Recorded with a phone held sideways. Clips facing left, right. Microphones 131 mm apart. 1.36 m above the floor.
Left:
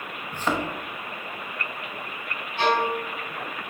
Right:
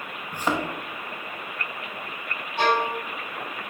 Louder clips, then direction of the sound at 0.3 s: Even; 10° right (ahead or behind).